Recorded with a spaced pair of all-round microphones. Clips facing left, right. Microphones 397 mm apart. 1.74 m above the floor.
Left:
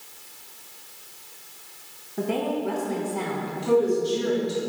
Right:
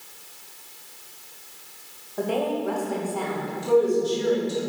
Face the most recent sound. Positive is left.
turn(degrees=75)  # may be behind; listen again after turning